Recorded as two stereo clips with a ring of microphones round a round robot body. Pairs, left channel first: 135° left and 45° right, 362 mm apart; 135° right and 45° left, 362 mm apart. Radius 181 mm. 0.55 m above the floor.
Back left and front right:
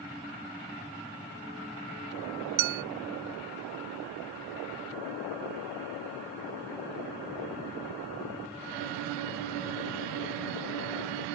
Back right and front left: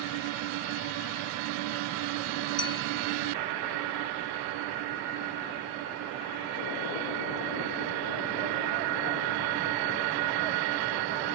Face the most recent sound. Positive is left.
turn(degrees=-55)